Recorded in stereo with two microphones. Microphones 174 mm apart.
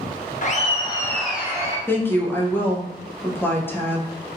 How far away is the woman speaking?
About 0.6 m.